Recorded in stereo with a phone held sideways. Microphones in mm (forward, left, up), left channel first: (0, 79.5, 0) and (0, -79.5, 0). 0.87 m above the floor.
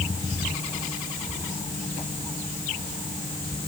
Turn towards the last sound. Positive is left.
No sound to turn to.